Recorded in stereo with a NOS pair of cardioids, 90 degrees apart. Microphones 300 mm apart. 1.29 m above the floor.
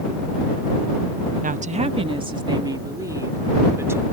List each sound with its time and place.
1.4 s a woman speaking: 25° right; by 4.0 s 10° right